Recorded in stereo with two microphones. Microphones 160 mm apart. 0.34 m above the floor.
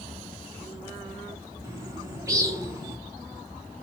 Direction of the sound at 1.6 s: 20° right (ahead or behind).